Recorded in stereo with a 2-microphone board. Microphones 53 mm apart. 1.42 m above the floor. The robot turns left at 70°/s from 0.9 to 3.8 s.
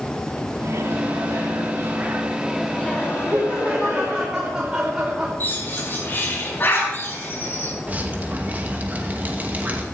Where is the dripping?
30° right (ahead or behind), 2 m.